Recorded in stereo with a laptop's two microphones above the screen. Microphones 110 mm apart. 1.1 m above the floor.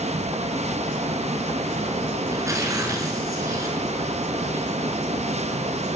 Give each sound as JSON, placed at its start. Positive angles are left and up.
{"t": 0.0, "sound": "a fan", "side_deg": -80, "distance_m": 1.2}
{"t": 2.3, "sound": "tearing paper", "side_deg": -30, "distance_m": 4.5}